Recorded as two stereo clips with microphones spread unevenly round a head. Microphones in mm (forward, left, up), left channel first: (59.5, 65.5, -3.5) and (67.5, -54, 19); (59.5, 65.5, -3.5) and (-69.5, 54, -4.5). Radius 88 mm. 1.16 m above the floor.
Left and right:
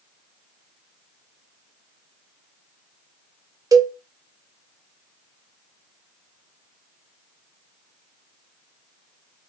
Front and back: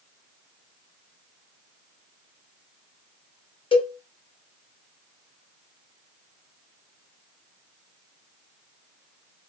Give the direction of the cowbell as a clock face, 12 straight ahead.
1 o'clock.